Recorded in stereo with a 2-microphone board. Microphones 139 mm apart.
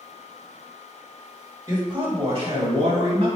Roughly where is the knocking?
I don't hear knocking.